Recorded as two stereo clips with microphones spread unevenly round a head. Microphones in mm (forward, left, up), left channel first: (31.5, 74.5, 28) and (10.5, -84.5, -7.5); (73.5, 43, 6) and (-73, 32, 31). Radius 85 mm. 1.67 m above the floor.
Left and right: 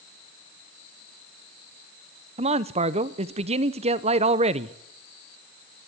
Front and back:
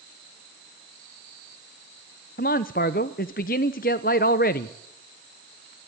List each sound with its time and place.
2.4 s a man speaking: 40° right, 0.8 m